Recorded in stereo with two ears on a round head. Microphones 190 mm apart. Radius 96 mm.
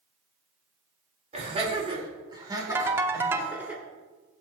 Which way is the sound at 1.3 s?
35° right (ahead or behind).